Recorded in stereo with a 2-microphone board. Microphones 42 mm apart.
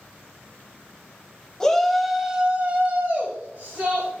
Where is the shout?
15° left (ahead or behind), 1.3 m; by 4.1 s 55° right (ahead or behind), 2.5 m.